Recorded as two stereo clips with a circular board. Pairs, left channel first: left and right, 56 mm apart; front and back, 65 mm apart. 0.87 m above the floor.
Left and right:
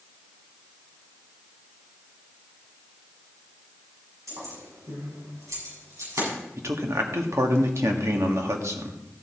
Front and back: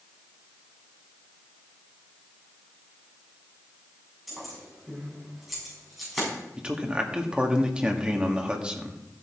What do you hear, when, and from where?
4.3 s keys jangling: 95° right, 6 m
6.6 s a man speaking: 110° right, 1.5 m